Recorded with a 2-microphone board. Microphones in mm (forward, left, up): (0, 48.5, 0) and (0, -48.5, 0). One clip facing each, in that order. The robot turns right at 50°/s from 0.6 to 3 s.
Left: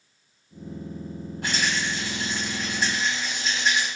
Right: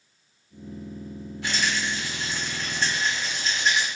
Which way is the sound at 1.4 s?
100° left.